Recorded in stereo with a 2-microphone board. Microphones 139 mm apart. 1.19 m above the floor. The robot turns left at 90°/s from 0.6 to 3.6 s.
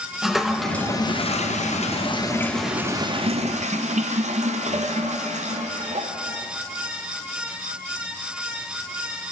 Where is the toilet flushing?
Straight behind, 0.5 m; by 6.1 s 90° right, 0.5 m.